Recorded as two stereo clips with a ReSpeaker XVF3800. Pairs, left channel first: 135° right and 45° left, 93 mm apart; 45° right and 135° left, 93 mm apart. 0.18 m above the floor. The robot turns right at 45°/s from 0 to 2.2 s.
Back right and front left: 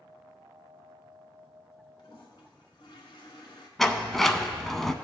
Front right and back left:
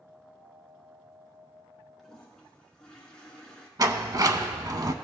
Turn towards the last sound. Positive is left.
turn(degrees=140)